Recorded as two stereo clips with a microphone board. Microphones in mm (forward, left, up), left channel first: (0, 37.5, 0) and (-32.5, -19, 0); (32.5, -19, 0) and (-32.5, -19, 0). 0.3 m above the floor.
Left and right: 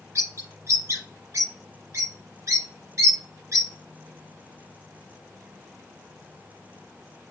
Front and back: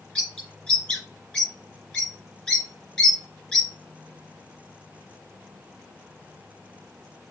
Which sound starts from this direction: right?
A bird, at 0.1 s.